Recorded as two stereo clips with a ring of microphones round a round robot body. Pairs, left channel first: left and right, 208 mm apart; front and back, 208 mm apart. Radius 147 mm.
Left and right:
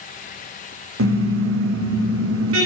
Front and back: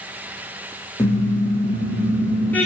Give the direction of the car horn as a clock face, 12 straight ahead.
3 o'clock.